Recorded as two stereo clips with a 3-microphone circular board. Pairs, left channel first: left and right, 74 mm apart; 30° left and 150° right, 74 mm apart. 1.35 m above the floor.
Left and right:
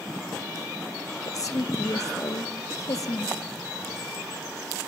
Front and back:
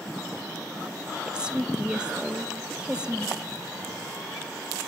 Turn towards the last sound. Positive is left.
turn(degrees=135)